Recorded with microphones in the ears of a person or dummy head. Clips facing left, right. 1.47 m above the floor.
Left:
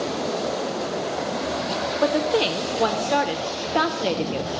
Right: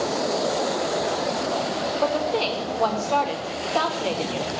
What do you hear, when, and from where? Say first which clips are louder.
2.0 s a woman speaking: left 4 dB; 20° left (ahead or behind), 0.8 m